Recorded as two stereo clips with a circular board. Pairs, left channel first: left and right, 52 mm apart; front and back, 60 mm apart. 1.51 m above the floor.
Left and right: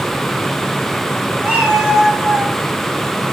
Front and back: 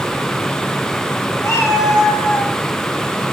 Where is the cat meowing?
30° right, 2.5 m; by 2.5 s 5° right, 2 m.